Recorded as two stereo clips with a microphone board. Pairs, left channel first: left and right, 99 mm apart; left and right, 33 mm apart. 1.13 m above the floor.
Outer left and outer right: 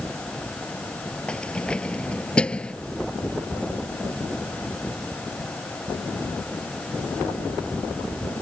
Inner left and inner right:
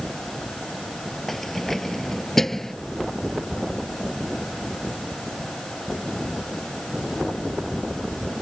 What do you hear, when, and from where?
1.3 s keys jangling: 10° left (ahead or behind)